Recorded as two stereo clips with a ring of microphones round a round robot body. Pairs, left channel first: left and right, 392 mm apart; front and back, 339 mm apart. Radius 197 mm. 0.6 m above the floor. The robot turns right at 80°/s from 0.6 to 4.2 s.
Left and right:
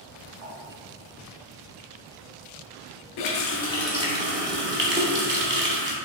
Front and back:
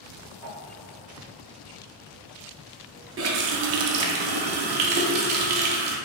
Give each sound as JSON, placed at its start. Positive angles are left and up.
{"t": 0.4, "sound": "a whoosh", "azimuth_deg": -120, "distance_m": 1.4}
{"t": 3.2, "sound": "a running tap", "azimuth_deg": 125, "distance_m": 0.6}